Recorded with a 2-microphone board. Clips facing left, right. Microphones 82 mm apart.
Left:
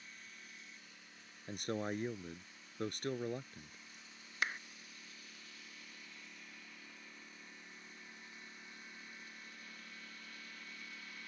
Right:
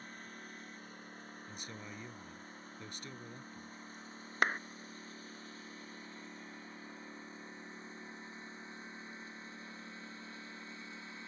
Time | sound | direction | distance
0.0 | a lawn mower | 45° right (ahead or behind) | ?
1.5 | a man speaking | 55° left (ahead or behind) | ?
4.4 | a clap | 50° right (ahead or behind) | ?